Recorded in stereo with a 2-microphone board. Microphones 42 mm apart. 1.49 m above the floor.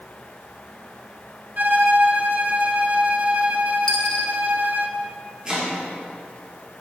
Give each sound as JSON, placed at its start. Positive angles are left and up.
{"t": 1.6, "sound": "a violin", "side_deg": -45, "distance_m": 0.8}
{"t": 3.9, "sound": "a dropped coin", "side_deg": 20, "distance_m": 0.9}
{"t": 5.5, "sound": "chopping", "side_deg": -25, "distance_m": 2.5}